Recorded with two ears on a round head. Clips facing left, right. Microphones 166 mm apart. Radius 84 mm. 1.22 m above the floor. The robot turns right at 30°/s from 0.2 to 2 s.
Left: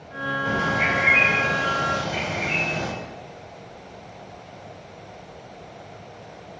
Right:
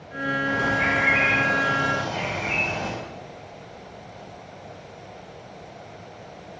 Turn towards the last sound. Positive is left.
turn(degrees=155)